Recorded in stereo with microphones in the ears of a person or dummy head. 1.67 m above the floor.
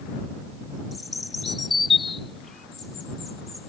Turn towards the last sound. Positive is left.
turn(degrees=0)  # may be behind; listen again after turning